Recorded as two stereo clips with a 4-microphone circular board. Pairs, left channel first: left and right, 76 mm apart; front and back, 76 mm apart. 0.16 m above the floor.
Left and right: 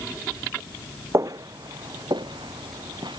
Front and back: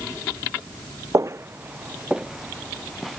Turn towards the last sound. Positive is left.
turn(degrees=-90)